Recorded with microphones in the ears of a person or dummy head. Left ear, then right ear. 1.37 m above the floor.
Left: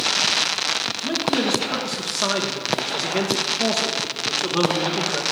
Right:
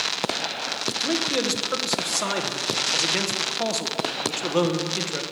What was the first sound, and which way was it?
A man speaking, 65° right (ahead or behind).